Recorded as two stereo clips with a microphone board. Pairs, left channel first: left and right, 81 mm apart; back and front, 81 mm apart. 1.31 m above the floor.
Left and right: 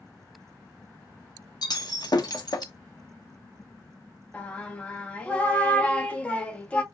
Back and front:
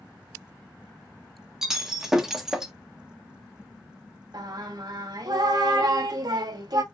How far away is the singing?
About 1.0 m.